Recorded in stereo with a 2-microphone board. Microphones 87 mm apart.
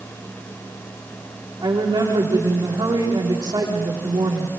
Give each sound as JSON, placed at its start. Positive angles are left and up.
{"t": 1.6, "sound": "a woman speaking", "side_deg": -50, "distance_m": 10.0}